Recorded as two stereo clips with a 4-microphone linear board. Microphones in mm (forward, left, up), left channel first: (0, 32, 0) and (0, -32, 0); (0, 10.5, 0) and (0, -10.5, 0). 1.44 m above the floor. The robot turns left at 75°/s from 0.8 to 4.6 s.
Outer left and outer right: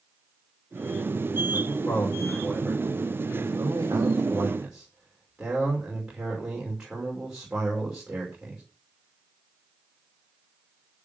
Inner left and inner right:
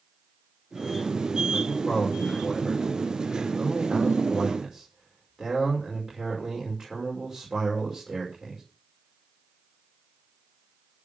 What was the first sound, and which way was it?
A man speaking, 65° left.